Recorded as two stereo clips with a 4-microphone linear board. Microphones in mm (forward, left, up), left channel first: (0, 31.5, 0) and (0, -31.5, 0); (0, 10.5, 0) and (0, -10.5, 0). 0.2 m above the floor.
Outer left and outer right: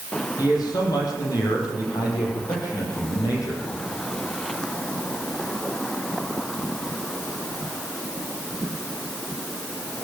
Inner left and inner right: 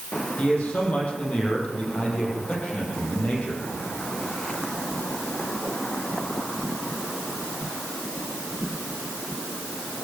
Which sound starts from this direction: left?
A man speaking, at 0.4 s.